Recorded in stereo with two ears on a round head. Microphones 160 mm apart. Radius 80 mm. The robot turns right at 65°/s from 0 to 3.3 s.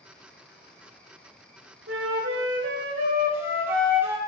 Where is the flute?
105° right, 0.9 m; by 4.2 s 15° right, 0.9 m.